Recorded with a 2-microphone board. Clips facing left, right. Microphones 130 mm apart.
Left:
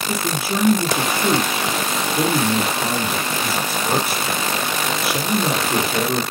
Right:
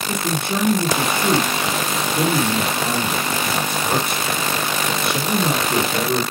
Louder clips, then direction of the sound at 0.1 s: Even; 5° left (ahead or behind).